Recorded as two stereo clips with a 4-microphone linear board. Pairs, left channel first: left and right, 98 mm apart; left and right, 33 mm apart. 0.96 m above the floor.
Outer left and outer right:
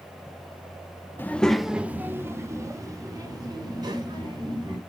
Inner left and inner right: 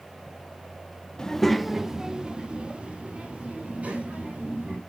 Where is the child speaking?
20° left (ahead or behind), 0.7 m; by 4.8 s 45° right (ahead or behind), 3 m.